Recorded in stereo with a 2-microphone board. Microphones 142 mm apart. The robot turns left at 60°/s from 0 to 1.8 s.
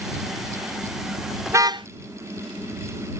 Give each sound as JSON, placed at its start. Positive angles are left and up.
{"t": 1.5, "sound": "a car horn", "side_deg": -15}